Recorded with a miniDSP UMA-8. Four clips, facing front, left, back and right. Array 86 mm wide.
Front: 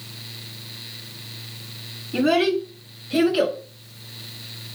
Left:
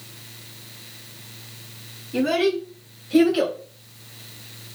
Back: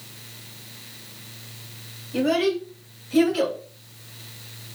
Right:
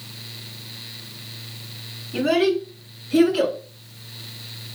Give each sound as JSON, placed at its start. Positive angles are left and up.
{"t": 2.1, "sound": "a child speaking", "azimuth_deg": 10, "distance_m": 1.4}